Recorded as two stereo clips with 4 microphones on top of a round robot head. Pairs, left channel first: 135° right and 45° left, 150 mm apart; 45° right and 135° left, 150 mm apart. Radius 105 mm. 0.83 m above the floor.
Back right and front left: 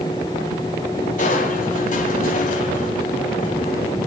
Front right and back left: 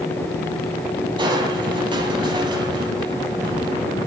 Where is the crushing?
165° right, 7 m.